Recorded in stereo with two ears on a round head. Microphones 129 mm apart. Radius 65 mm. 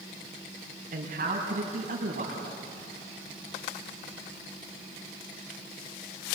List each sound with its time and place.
0.9 s a man speaking: 55° right (ahead or behind), 5 m